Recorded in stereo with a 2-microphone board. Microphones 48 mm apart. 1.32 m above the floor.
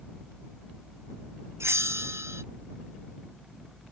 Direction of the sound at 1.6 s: 75° right (ahead or behind).